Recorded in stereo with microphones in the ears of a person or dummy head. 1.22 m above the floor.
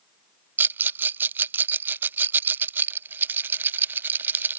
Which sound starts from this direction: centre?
A rattle, at 0.6 s.